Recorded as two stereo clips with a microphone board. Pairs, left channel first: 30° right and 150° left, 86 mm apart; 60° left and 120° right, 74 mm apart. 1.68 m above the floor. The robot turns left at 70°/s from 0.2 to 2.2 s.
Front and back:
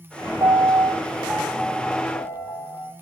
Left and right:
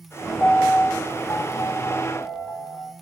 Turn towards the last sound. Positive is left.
turn(degrees=5)